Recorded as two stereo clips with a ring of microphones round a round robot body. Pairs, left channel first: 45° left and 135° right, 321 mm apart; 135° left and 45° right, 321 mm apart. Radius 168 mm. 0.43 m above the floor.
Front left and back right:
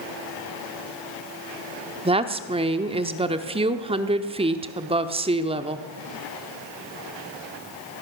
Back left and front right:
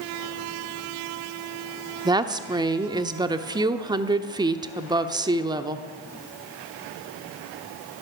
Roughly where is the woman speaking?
Right.